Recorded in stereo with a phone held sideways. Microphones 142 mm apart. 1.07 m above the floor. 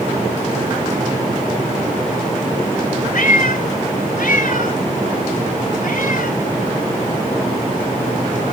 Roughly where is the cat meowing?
Left.